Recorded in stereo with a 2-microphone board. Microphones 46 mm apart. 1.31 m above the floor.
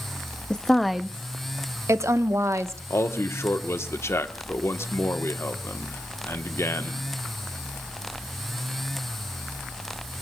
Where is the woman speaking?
15° left (ahead or behind), 0.8 m; by 2.8 s 75° right (ahead or behind), 1.3 m.